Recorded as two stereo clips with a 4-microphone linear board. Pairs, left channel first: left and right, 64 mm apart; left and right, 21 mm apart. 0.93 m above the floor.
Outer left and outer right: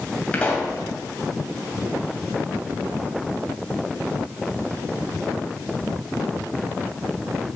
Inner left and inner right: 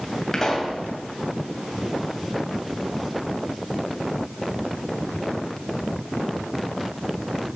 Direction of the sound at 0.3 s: 20° left (ahead or behind).